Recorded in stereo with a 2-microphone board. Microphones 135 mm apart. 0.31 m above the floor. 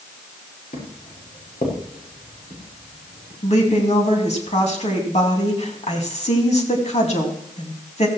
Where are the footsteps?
70° left (ahead or behind), 6 m; by 3.3 s 85° left, 6.5 m.